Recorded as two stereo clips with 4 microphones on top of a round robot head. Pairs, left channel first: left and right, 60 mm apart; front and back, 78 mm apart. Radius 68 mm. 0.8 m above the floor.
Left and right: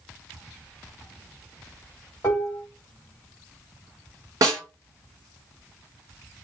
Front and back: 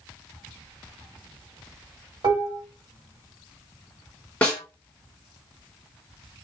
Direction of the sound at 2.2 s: 160° left.